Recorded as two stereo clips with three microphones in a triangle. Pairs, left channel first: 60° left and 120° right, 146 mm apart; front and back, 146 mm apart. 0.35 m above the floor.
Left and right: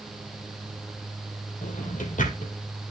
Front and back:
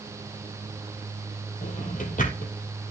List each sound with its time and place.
1.6 s a drawer: 30° left, 3 m